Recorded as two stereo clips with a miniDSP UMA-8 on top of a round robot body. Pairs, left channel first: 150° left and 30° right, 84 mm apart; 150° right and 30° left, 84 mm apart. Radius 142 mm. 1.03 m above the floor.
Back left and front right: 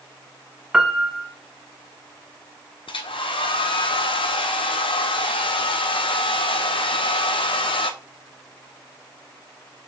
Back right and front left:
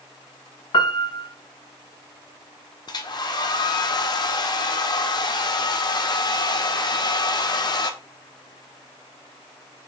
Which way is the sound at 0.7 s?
115° right.